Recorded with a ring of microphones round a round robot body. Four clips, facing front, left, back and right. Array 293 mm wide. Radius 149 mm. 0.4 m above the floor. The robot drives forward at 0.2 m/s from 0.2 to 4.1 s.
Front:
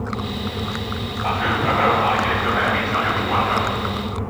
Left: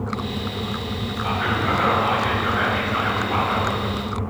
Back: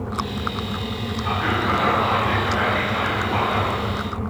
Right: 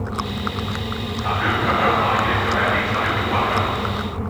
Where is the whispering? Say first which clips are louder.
Right 2 dB, front 2 dB; 20° right, 2 m; by 3.8 s 25° right, 1.7 m.